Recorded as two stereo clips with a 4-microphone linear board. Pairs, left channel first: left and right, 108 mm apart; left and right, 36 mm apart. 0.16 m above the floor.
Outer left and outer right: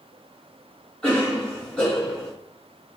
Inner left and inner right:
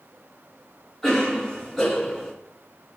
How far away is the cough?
About 2.0 m.